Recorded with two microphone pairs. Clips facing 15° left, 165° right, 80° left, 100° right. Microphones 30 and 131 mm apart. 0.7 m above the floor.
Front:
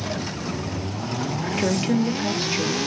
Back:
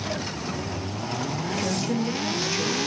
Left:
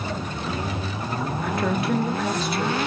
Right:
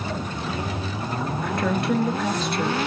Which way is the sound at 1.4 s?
10° right.